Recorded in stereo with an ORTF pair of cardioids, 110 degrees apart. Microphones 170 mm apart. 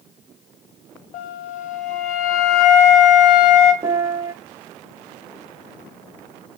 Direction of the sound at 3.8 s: 20° right.